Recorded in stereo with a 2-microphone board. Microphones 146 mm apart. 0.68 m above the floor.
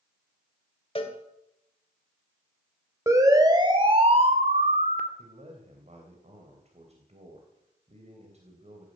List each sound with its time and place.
0.9 s a cowbell: 40° left (ahead or behind), 2 m
3.1 s a siren: 20° right (ahead or behind), 3 m; by 5.1 s 70° right (ahead or behind), 1.8 m
5.2 s a man speaking: 45° right (ahead or behind), 3 m